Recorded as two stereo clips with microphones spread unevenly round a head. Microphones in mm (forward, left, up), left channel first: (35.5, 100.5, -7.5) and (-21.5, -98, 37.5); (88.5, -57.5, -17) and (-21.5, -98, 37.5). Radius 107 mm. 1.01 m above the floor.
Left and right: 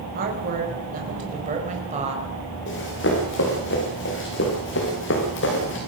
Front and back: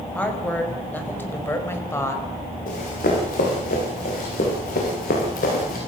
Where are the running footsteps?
40° left, 9 m.